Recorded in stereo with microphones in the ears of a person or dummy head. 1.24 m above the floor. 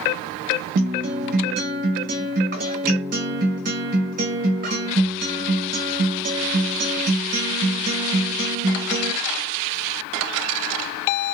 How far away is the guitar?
About 1.0 m.